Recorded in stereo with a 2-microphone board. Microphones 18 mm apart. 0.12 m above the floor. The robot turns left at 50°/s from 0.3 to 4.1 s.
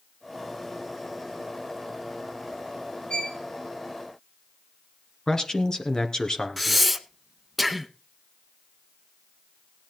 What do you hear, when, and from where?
3.1 s a violin: 70° left (ahead or behind), 4 m; by 3.4 s 80° left, 4 m
5.3 s a man speaking: 30° left (ahead or behind), 2 m
6.6 s breathing: centre (ahead or behind), 1.1 m